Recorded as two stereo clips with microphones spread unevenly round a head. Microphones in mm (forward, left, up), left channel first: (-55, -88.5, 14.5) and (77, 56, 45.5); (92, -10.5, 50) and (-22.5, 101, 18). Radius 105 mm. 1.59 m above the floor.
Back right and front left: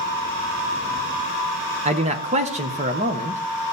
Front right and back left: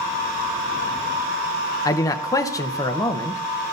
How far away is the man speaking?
About 0.7 m.